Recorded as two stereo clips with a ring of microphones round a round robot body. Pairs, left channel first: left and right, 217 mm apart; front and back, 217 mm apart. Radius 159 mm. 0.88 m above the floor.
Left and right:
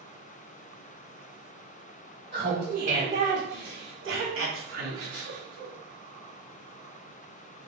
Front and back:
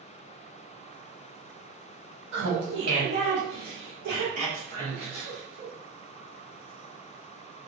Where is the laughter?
160° right, 1.8 m; by 5.7 s 105° right, 3 m.